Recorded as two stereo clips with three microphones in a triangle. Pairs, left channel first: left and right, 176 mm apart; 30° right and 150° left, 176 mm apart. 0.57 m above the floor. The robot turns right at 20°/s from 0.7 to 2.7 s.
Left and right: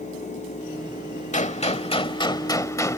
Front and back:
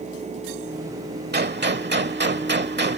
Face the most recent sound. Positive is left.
turn(degrees=160)